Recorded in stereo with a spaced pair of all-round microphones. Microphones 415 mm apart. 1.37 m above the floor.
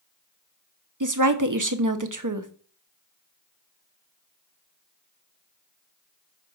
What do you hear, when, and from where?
1.0 s a woman speaking: 45° right (ahead or behind), 0.8 m